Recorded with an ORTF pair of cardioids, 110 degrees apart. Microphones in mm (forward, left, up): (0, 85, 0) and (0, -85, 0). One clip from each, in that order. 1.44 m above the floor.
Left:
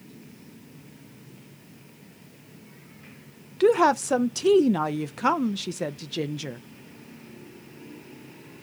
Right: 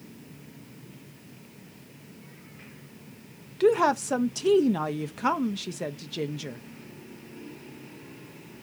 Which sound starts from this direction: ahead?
A woman speaking, at 3.6 s.